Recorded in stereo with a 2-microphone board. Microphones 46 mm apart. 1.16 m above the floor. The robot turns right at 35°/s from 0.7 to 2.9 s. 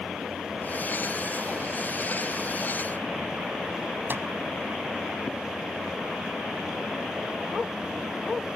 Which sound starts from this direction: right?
A microwave, at 4.1 s.